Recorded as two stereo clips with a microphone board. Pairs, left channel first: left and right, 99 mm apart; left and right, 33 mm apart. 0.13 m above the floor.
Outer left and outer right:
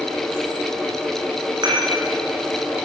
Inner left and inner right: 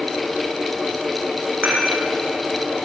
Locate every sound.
1.6 s dishes clattering: 45° right (ahead or behind), 5.5 m